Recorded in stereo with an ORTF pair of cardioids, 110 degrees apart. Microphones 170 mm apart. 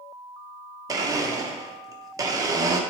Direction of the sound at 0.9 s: 20° right.